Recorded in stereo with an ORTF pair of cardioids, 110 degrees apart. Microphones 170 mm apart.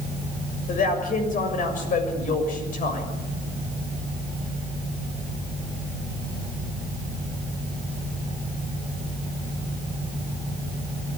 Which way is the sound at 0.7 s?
50° left.